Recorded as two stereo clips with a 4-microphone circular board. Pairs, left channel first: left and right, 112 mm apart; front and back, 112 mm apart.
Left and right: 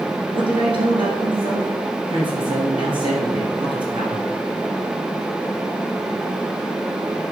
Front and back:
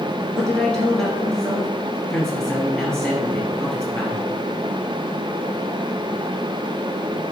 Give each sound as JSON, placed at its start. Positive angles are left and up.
{"t": 0.3, "sound": "a man speaking", "azimuth_deg": -85, "distance_m": 2.0}